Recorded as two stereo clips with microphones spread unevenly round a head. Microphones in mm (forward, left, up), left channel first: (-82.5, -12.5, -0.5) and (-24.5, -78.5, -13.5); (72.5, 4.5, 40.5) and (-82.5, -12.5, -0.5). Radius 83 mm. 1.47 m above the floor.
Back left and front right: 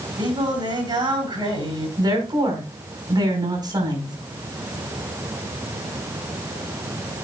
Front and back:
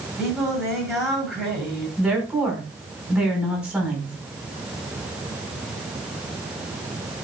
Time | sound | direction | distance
0.2 | singing | 80° right | 9.5 m
2.0 | a woman speaking | 90° right | 5.5 m